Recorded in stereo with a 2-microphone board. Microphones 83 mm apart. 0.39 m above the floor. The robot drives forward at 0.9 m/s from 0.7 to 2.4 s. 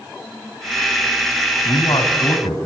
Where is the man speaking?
65° left (ahead or behind), 3 m.